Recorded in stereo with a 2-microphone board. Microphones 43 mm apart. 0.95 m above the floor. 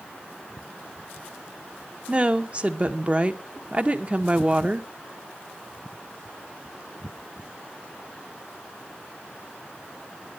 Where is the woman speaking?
35° right (ahead or behind), 1.0 m.